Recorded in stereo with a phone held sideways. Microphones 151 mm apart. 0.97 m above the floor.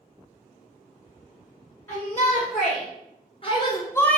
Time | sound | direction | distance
1.9 | a shout | 45° left (ahead or behind) | 1.5 m